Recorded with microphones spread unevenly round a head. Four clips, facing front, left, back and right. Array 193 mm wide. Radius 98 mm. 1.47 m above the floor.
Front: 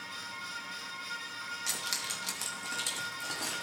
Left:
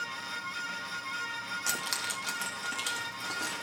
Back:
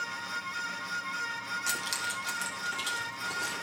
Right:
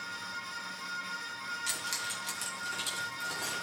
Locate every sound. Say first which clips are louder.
1.7 s keys jangling: left 3 dB, back 6 dB; 100° left, 0.9 m; by 3.6 s 45° left, 2.5 m